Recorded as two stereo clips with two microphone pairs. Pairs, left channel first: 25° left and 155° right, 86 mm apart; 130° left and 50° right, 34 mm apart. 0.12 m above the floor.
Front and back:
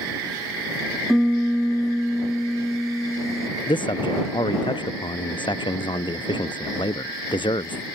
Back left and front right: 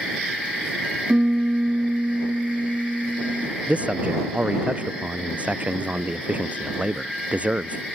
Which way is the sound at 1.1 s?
70° right.